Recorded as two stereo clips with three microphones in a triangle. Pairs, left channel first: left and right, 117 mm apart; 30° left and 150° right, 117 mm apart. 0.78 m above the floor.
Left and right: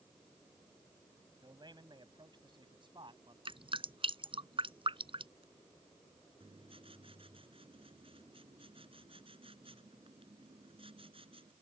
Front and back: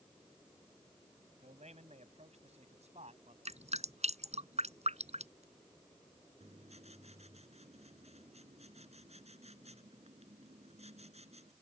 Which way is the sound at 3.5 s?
130° right.